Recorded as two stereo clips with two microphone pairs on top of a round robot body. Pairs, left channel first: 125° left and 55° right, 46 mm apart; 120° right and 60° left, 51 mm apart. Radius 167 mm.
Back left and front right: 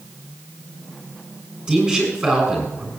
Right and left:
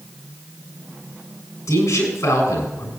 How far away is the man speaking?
About 6.5 m.